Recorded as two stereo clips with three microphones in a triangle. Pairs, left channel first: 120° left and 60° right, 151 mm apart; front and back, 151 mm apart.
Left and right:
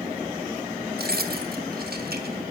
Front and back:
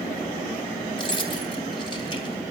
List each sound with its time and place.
1.0 s keys jangling: 60° right, 3 m